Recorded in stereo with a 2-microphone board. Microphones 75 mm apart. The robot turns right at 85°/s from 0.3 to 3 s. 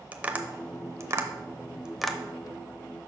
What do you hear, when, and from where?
0.1 s tapping: 20° right (ahead or behind), 0.6 m; by 2.2 s 5° left (ahead or behind), 0.6 m